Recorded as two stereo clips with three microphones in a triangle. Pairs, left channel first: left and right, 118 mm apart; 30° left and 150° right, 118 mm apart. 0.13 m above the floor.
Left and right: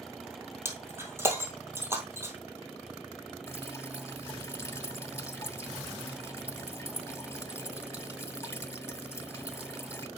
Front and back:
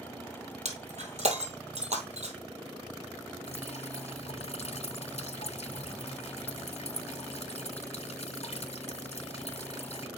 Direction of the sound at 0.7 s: 160° right.